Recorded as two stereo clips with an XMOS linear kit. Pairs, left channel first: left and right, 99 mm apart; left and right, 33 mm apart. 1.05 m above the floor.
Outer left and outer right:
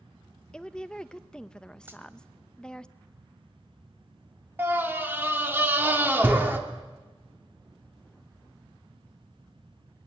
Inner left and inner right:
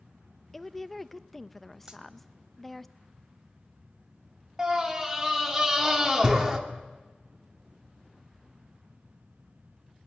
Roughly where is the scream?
Right.